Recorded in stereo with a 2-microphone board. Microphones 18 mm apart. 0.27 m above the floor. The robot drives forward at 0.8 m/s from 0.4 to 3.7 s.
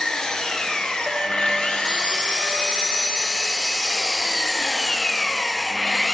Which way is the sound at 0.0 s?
55° left (ahead or behind).